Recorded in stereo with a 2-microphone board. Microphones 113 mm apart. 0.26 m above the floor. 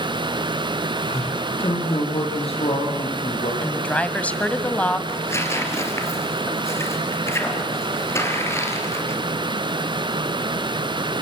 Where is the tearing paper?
25° left (ahead or behind), 3.5 m.